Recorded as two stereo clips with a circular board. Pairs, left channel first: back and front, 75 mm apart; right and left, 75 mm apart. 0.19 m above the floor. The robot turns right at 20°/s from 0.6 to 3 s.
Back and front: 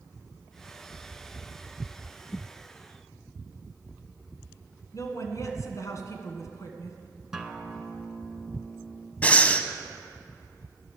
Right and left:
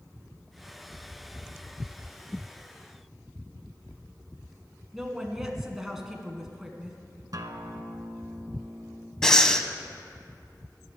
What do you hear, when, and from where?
4.9 s a woman speaking: 170° left, 1.5 m
7.3 s a guitar: 80° left, 0.8 m
9.2 s breathing: 160° right, 0.6 m